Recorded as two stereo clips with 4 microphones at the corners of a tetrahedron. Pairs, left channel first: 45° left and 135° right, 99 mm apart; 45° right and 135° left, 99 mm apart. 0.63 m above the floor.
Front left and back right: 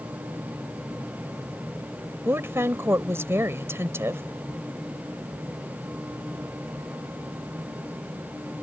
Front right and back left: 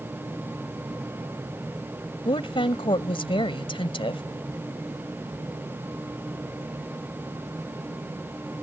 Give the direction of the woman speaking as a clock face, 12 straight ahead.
2 o'clock.